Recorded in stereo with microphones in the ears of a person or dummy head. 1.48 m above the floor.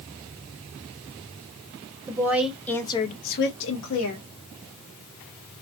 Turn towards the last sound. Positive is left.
turn(degrees=80)